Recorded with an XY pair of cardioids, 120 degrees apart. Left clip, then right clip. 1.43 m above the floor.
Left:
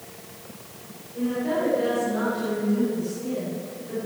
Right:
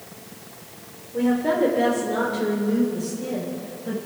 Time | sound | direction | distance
1.1 | a woman speaking | 60° right | 4 m